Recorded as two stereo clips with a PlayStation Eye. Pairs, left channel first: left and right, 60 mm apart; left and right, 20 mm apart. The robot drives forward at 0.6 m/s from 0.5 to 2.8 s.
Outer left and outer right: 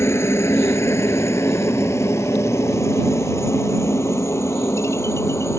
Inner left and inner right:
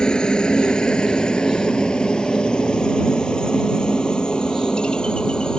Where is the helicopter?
55° left (ahead or behind).